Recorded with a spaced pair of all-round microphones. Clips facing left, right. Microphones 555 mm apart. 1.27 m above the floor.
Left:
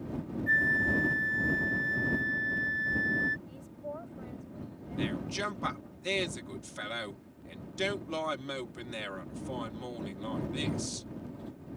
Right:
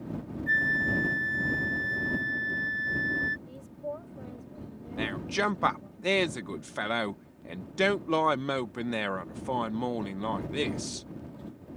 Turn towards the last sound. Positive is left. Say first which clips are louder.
# right 3 dB
turn(degrees=-75)  # may be behind; listen again after turning